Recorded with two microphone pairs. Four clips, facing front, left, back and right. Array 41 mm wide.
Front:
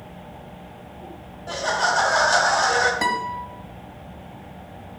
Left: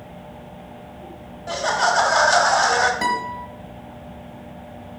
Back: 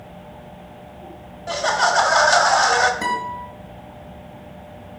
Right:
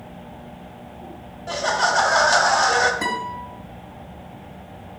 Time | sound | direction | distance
1.5 | laughter | straight behind | 1.0 m
3.0 | a guitar | 20° left | 2.5 m